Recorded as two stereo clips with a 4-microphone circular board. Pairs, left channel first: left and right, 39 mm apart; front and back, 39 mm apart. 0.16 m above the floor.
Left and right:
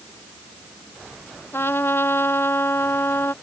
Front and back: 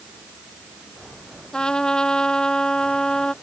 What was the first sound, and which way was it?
A trumpet, 75° left.